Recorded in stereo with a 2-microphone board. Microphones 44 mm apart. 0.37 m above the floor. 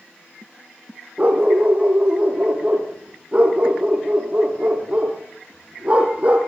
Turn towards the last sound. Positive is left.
turn(degrees=-30)  # may be behind; listen again after turning